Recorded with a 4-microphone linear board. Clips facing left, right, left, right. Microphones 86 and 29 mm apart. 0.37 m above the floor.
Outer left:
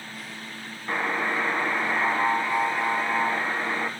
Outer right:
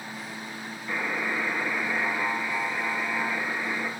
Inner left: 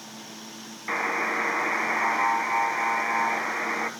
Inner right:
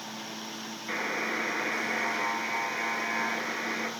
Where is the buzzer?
75° left (ahead or behind), 1.7 m.